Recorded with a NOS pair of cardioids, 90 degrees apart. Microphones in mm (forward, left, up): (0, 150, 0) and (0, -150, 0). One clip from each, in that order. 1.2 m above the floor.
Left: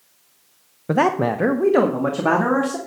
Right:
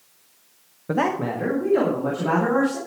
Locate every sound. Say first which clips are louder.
0.9 s a man speaking: left 5 dB; 20° left, 0.7 m; by 2.8 s 75° left, 3 m